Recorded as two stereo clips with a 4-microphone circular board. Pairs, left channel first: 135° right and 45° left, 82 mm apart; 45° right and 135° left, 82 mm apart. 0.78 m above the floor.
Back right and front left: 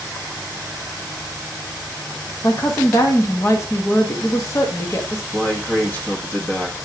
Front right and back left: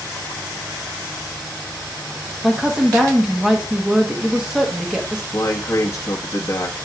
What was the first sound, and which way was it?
A woman speaking, 150° right.